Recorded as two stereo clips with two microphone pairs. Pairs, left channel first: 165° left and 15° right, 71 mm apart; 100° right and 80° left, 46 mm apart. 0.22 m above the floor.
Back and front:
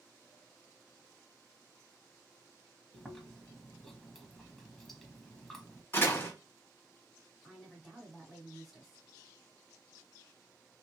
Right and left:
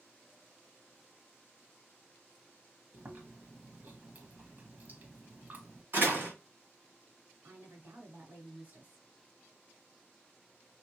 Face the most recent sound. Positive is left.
turn(degrees=80)